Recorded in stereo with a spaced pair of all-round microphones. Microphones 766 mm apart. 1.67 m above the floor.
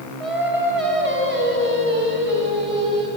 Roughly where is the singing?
Right.